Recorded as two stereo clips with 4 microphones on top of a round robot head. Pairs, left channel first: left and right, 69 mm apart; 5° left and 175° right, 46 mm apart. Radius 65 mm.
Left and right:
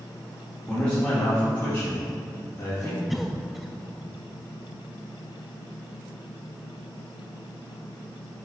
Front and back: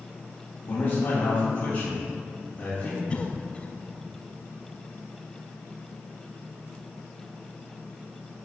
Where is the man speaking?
20° left, 2.5 m; by 3.0 s 60° left, 2 m.